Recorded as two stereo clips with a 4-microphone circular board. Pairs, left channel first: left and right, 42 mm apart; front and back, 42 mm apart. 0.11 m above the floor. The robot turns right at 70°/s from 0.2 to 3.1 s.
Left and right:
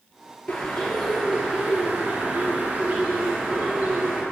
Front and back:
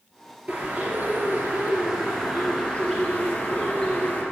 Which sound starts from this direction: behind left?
A bird, at 0.5 s.